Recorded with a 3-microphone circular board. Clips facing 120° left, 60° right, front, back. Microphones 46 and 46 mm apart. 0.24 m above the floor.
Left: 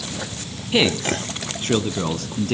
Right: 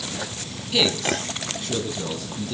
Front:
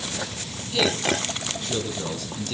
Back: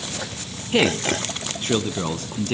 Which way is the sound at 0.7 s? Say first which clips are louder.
Left 3 dB, back 3 dB; 170° left.